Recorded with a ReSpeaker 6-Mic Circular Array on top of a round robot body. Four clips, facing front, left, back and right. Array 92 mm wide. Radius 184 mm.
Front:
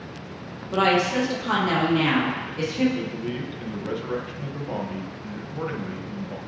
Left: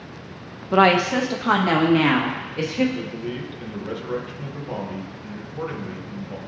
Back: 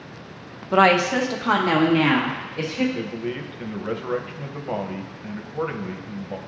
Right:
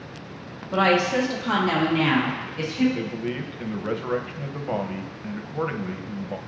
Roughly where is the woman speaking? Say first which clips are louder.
Left 4 dB, back 4 dB; behind left.